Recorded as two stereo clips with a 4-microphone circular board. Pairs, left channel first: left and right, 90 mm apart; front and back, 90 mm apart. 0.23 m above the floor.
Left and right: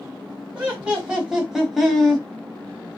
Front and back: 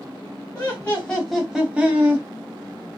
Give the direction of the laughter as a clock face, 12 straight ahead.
1 o'clock.